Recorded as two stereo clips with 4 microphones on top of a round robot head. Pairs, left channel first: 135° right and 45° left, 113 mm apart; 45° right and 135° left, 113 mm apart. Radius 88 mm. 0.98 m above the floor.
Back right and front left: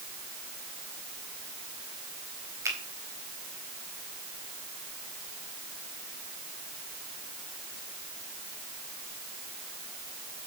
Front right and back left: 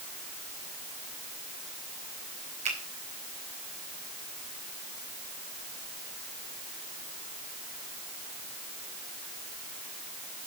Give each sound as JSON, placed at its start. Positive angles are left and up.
{"t": 2.6, "sound": "a finger snap", "azimuth_deg": 105, "distance_m": 4.0}